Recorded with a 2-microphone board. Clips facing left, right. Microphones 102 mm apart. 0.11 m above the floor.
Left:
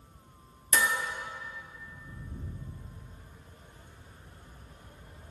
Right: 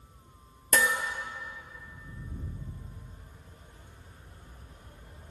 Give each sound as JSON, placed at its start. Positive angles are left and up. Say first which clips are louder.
{"t": 0.7, "sound": "dishes clattering", "louder": "right 2 dB", "side_deg": -60, "distance_m": 1.4}